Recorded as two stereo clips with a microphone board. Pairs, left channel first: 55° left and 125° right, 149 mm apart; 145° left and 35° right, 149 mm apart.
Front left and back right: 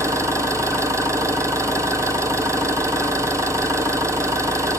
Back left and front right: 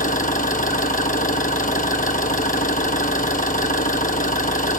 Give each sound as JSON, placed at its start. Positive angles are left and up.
{"t": 0.0, "sound": "an engine running", "azimuth_deg": 165, "distance_m": 1.2}